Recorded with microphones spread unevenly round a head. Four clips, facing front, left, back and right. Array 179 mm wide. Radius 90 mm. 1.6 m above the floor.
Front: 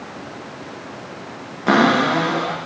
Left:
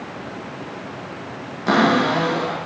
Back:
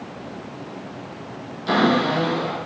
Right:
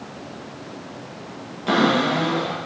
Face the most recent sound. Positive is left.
turn(degrees=15)